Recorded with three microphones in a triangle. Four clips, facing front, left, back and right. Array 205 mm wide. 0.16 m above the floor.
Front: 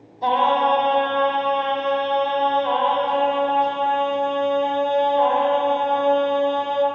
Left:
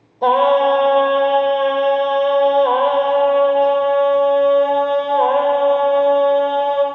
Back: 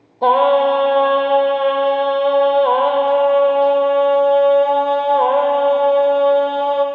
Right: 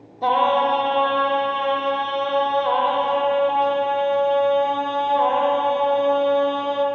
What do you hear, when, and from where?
0.2 s singing: 155° left, 3 m